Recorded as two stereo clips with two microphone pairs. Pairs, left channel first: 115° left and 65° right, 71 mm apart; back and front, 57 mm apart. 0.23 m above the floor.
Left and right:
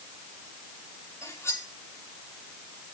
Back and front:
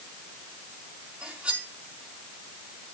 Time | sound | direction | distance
1.2 | cutlery clinking | 70° left | 5.5 m